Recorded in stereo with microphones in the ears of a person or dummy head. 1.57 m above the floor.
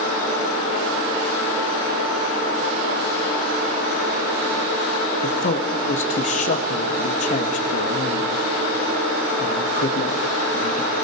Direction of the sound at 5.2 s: 45° left (ahead or behind).